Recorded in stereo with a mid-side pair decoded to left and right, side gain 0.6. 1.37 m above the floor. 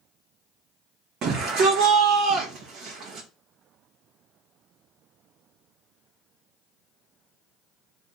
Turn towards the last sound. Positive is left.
turn(degrees=-55)